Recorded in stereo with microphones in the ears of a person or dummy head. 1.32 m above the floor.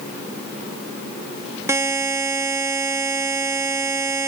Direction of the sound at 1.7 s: 15° right (ahead or behind).